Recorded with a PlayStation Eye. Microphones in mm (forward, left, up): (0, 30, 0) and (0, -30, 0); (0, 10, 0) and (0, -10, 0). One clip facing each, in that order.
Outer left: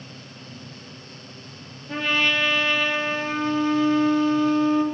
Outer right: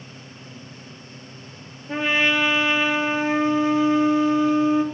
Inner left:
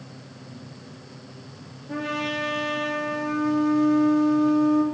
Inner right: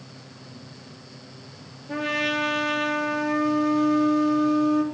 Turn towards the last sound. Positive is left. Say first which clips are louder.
# outer right 2 dB, inner right 3 dB
turn(degrees=-15)  # may be behind; listen again after turning